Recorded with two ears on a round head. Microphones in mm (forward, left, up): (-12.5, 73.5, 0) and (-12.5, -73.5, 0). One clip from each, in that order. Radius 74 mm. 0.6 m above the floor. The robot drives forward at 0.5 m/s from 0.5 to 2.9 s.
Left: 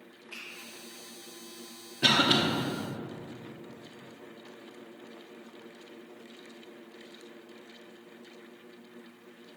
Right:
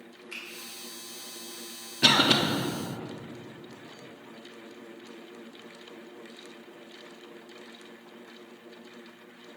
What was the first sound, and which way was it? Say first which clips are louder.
A finger snap: right 4 dB; 65° right (ahead or behind).